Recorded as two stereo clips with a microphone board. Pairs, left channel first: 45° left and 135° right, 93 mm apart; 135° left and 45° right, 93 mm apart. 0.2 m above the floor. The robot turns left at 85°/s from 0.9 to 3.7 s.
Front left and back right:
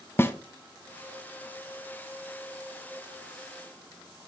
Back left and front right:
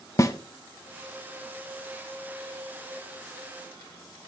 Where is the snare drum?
100° left, 0.6 m.